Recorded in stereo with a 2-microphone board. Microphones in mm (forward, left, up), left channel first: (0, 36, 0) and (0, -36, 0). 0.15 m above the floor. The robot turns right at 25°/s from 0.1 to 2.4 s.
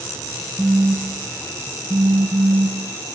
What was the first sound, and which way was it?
A phone buzzing, 160° right.